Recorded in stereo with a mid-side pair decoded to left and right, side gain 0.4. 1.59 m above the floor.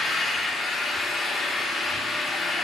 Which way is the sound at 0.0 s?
55° left.